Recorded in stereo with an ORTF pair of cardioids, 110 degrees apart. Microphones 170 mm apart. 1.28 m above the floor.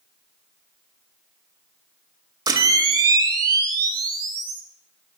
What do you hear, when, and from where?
2.5 s a camera shutter: 25° right, 2 m